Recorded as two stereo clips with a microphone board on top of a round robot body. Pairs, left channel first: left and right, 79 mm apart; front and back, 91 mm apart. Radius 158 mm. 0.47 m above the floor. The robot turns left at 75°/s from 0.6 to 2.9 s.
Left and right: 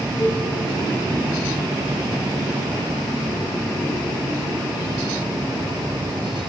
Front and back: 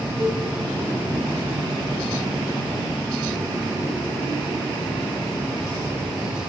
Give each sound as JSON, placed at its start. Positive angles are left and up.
{"t": 0.2, "sound": "a cowbell", "azimuth_deg": 135, "distance_m": 5.5}